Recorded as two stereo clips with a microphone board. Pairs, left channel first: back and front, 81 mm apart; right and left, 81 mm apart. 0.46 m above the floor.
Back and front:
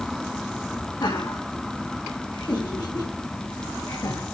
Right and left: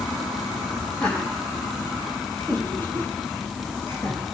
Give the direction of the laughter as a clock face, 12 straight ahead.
5 o'clock.